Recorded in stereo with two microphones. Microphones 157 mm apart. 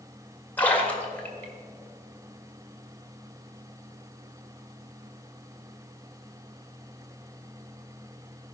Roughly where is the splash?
Centre.